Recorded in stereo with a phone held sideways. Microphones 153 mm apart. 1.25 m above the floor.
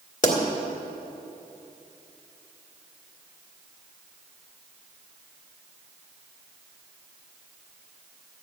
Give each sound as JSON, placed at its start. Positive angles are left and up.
{"t": 0.2, "sound": "a pop", "side_deg": 55, "distance_m": 2.0}